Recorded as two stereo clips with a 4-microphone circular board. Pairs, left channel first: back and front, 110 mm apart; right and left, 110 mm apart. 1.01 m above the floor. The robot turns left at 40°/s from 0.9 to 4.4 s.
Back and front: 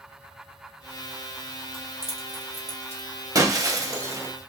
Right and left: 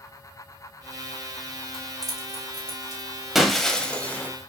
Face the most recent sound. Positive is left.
turn(degrees=-40)